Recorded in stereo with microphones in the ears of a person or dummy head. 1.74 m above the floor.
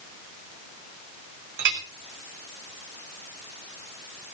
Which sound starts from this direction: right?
A clink, at 1.6 s.